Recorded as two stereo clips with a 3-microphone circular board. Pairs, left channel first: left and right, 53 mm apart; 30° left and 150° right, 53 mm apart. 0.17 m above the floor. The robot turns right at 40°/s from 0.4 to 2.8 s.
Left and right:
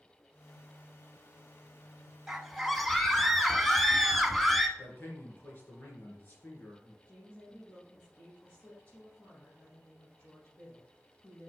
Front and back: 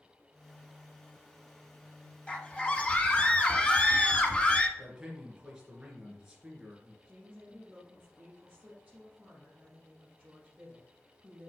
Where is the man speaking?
135° left, 3 m.